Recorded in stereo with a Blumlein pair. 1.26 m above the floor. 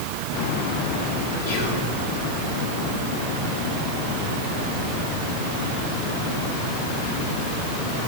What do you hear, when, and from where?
1.5 s whispering: 65° left, 3.5 m